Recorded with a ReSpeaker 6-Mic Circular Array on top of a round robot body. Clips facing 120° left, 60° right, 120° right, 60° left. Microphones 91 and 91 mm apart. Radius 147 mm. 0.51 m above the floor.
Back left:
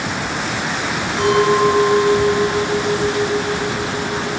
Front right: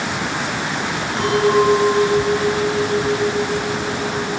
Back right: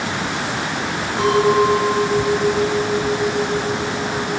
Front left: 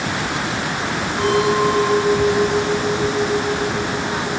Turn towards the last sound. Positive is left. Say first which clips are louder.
# back left 1 dB, back right 2 dB
turn(degrees=-110)